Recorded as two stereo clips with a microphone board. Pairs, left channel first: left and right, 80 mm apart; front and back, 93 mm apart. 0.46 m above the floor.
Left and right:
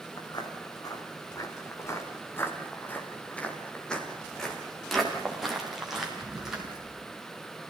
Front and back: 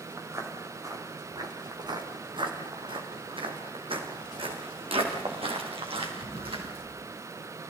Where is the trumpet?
I don't hear a trumpet.